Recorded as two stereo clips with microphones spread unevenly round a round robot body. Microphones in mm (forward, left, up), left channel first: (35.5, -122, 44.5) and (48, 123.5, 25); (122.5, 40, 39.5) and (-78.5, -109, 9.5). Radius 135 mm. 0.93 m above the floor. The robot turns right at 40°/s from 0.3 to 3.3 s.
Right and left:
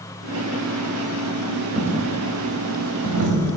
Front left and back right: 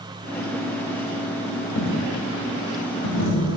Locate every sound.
1.8 s a dropped coin: straight ahead, 1.8 m; by 3.6 s 60° left, 1.8 m